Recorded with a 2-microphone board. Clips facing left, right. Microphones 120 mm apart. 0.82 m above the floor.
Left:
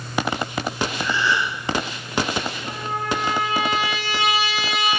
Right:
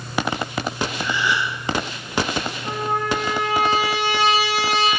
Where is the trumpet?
75° right (ahead or behind), 5 m.